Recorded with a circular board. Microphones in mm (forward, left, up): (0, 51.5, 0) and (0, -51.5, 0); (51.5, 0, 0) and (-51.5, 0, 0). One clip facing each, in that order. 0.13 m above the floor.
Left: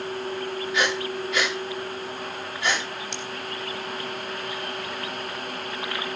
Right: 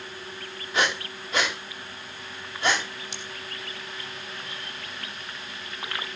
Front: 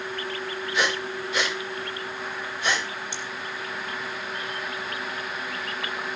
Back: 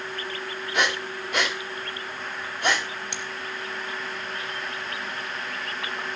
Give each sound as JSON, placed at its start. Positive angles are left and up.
{"t": 0.7, "sound": "breathing", "azimuth_deg": -140, "distance_m": 7.5}
{"t": 3.1, "sound": "scissors", "azimuth_deg": -175, "distance_m": 3.5}